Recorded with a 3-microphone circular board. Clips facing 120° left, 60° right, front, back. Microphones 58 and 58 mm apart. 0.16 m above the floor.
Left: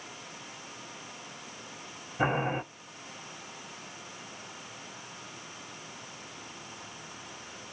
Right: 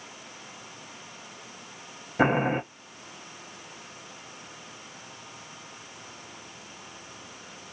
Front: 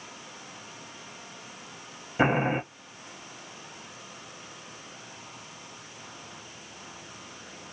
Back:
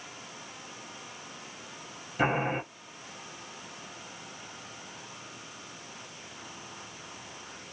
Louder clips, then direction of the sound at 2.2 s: Right 5 dB, front 4 dB; 60° right.